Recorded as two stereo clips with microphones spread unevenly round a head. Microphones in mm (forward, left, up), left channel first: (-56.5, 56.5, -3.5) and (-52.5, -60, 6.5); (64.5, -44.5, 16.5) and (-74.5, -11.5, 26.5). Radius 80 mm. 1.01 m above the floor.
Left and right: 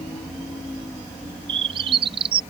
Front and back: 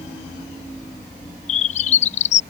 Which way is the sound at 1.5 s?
35° right.